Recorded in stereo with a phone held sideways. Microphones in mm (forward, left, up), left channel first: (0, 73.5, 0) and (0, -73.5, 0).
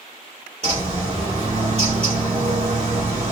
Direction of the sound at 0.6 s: 45° right (ahead or behind).